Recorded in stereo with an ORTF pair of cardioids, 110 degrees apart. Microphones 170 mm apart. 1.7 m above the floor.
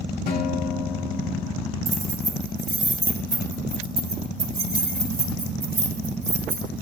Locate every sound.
0.3 s a guitar: 65° left, 2.5 m
1.9 s keys jangling: 35° right, 3.5 m